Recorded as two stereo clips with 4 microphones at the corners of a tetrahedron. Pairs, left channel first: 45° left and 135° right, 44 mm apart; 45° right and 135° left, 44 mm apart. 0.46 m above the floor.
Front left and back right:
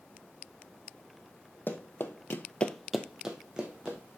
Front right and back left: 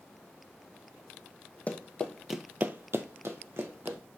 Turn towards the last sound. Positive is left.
turn(degrees=160)